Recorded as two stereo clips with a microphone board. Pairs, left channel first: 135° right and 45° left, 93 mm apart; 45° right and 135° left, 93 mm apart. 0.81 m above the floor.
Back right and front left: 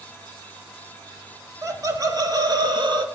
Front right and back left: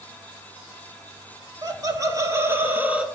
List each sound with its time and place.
1.6 s laughter: 95° left, 1.9 m; by 3.0 s 60° left, 1.5 m